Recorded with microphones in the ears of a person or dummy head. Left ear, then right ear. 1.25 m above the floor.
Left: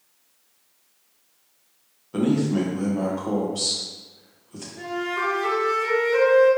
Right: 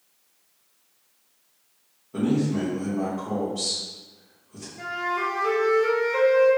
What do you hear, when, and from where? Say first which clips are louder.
2.1 s a man speaking: left 3 dB; 40° left (ahead or behind), 1.0 m
4.8 s a flute: even; 75° left (ahead or behind), 1.6 m